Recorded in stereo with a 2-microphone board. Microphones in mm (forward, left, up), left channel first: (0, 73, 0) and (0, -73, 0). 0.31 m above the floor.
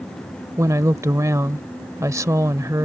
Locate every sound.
0.6 s a woman speaking: 20° right (ahead or behind)